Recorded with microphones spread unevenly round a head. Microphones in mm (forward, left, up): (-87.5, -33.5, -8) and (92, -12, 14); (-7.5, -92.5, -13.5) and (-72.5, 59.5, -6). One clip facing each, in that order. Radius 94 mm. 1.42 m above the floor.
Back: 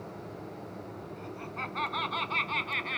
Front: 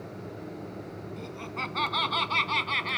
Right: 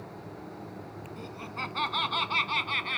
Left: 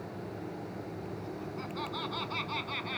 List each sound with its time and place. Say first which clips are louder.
1.2 s laughter: front 2 dB, left 1 dB; 35° right; by 3.0 s 20° right